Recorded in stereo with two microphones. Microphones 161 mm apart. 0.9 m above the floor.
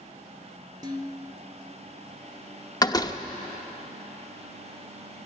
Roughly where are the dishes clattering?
Right.